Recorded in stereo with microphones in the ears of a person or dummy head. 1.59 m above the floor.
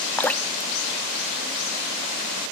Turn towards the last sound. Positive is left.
turn(degrees=10)  # may be behind; listen again after turning